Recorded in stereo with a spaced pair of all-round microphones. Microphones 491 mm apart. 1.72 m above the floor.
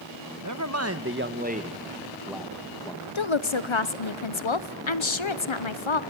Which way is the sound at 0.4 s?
35° right (ahead or behind).